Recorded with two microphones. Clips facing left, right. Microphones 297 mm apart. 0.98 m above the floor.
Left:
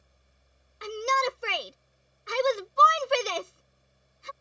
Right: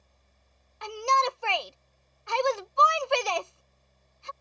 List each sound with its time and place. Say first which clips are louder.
0.8 s a shout: left 1 dB; 20° left (ahead or behind)